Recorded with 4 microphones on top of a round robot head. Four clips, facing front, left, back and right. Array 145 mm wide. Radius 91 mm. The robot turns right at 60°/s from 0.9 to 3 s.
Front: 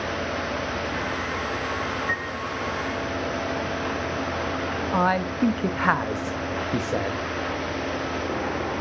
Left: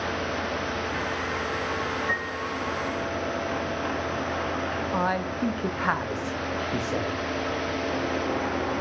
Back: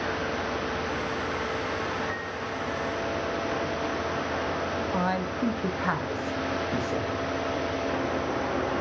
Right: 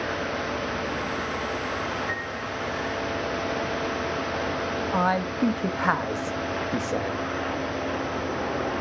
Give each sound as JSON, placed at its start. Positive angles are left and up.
{"t": 2.1, "sound": "a piano", "azimuth_deg": 30, "distance_m": 3.0}
{"t": 4.9, "sound": "a man speaking", "azimuth_deg": -15, "distance_m": 0.6}